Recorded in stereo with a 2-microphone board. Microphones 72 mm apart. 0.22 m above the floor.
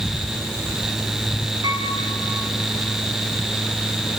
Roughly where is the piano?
Right.